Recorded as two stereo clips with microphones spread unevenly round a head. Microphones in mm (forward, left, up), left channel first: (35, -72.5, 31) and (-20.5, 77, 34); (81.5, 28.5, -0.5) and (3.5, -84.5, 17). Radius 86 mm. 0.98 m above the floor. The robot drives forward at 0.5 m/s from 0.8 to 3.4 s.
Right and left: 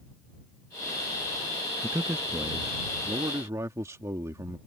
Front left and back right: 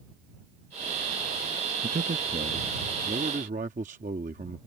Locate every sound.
1.8 s a man speaking: 170° right; by 4.6 s 175° right